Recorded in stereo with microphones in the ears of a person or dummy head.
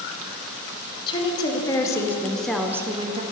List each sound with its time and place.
1.1 s a woman speaking: 25° left (ahead or behind), 1.2 m; by 3.2 s 25° right (ahead or behind), 0.5 m